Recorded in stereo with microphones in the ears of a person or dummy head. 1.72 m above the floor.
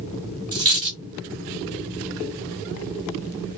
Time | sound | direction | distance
0.5 | a dropped coin | 25° right (ahead or behind) | 2 m